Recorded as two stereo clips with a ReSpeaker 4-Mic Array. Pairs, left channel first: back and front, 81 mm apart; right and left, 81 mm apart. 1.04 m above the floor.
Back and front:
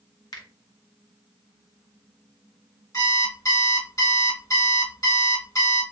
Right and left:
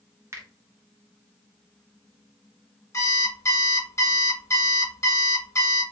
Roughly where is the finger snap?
Behind left.